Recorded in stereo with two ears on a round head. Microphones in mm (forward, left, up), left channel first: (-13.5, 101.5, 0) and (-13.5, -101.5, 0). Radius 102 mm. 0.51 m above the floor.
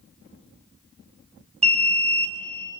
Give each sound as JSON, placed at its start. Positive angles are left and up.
{"t": 1.6, "sound": "an alarm", "side_deg": -30, "distance_m": 5.0}